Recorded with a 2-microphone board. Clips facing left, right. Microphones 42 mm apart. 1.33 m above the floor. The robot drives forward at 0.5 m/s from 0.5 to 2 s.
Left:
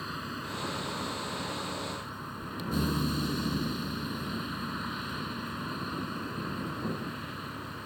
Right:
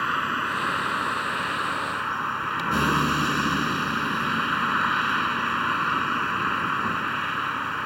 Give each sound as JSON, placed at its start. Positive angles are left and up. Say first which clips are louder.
{"t": 0.0, "sound": "a vehicle", "louder": "right 13 dB", "side_deg": -65}